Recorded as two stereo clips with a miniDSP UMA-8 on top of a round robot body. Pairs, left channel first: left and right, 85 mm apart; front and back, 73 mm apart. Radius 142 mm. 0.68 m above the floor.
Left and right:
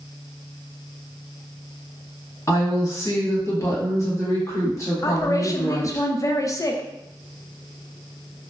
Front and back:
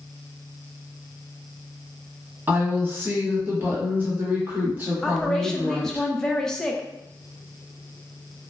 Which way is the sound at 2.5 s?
130° left.